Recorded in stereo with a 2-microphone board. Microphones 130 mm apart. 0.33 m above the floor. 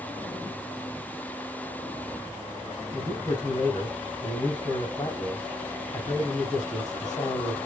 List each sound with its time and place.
2.9 s a man speaking: 35° left (ahead or behind), 2 m